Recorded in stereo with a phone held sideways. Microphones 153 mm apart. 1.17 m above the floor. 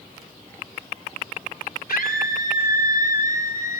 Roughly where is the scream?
Left.